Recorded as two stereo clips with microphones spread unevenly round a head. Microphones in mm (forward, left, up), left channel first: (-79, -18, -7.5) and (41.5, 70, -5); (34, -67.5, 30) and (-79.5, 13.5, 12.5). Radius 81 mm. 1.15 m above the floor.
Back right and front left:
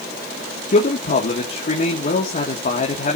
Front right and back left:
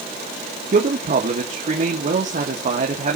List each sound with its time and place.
0.7 s a man speaking: straight behind, 2.5 m